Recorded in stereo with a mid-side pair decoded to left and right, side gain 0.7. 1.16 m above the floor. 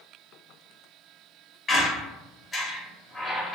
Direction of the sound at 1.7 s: 20° left.